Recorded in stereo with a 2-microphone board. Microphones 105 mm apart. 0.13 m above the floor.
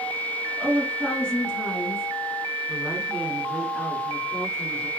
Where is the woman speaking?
10° left (ahead or behind), 1.5 m; by 4.9 s centre (ahead or behind), 1.9 m.